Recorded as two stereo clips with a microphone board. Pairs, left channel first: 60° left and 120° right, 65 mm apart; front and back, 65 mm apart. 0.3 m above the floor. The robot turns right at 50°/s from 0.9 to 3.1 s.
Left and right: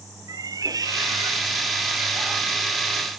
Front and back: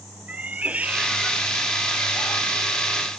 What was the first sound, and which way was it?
A cat meowing, 110° right.